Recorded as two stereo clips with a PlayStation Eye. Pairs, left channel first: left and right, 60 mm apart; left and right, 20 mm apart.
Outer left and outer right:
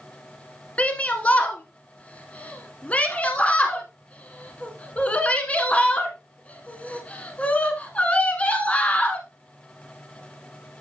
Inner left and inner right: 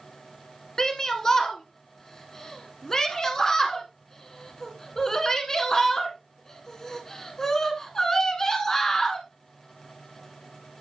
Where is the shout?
25° left (ahead or behind), 1.3 m.